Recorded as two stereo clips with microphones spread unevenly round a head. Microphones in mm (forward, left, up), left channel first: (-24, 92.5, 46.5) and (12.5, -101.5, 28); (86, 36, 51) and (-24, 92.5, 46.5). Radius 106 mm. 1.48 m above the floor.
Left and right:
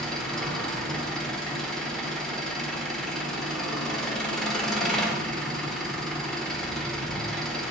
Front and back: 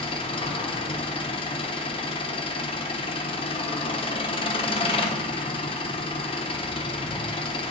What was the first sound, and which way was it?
An engine running, 15° left.